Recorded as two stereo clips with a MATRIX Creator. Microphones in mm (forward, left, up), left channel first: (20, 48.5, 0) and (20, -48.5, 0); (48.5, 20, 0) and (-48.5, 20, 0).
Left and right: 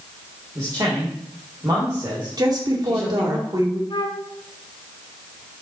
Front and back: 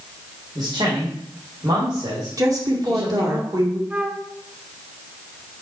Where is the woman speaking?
135° right, 2 m.